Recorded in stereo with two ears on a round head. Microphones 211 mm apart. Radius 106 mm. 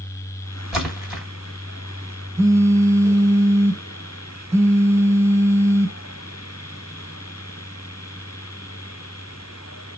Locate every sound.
0.7 s a splash: centre (ahead or behind), 1.2 m
2.4 s a phone buzzing: 10° right (ahead or behind), 0.5 m